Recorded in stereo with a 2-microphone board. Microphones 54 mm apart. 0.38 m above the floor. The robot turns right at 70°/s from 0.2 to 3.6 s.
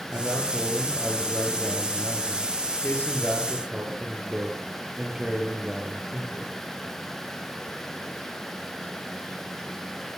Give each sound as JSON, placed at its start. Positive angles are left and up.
{"t": 0.1, "sound": "a man speaking", "azimuth_deg": -50, "distance_m": 9.5}